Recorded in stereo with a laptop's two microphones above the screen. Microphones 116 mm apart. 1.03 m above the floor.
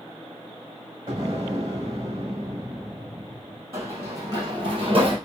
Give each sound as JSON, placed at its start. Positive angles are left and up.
{"t": 1.1, "sound": "an explosion", "side_deg": -45, "distance_m": 1.4}
{"t": 3.7, "sound": "running footsteps", "side_deg": -25, "distance_m": 2.0}